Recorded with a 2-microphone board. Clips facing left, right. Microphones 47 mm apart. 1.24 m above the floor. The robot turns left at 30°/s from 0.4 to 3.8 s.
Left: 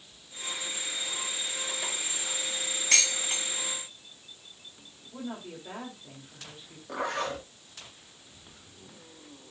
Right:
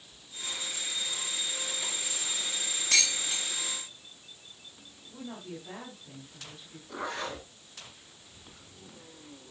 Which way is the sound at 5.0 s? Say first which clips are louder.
Left 3 dB; 30° left (ahead or behind).